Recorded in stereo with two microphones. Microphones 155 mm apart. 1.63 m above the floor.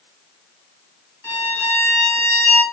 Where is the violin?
15° left (ahead or behind), 3 m.